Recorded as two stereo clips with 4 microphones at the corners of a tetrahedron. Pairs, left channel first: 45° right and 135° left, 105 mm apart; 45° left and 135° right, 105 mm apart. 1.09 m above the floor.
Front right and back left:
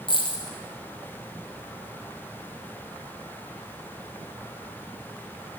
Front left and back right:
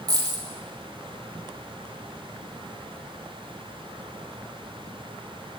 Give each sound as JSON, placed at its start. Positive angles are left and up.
{"t": 0.1, "sound": "a dropped coin", "azimuth_deg": -85, "distance_m": 2.5}